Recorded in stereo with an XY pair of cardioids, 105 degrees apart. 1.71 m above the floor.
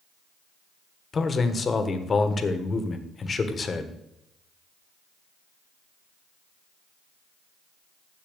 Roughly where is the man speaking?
Ahead left.